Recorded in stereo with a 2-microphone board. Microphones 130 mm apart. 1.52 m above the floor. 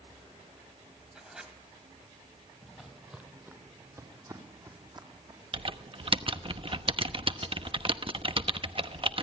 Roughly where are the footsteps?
Centre.